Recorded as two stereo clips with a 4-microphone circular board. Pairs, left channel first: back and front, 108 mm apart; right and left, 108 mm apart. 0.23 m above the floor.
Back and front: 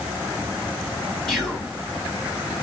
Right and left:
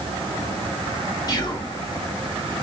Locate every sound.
1.3 s whispering: 90° right, 1.3 m